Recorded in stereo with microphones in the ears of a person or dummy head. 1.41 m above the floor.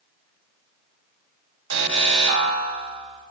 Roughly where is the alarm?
Right.